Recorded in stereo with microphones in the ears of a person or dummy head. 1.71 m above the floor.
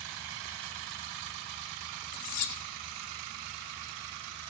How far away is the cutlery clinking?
About 1.8 m.